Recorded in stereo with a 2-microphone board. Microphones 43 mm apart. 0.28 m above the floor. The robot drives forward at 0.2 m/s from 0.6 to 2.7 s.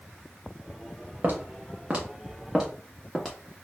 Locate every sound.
1.2 s footsteps: 45° right (ahead or behind), 1.7 m; by 3.6 s 15° left (ahead or behind), 2.0 m